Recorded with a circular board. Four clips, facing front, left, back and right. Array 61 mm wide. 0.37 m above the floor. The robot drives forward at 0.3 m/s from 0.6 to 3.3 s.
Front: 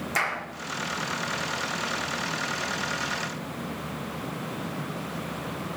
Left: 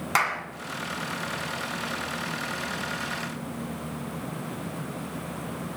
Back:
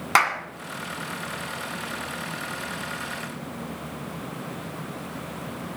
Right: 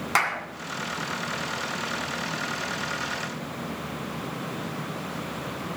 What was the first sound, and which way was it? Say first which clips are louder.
A clap: even, back 8 dB; 175° right.